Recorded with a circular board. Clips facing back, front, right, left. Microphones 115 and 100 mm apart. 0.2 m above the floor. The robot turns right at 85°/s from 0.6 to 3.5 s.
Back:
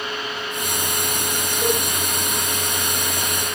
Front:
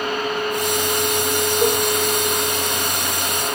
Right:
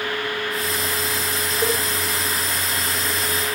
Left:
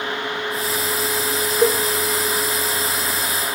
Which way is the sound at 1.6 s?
45° left.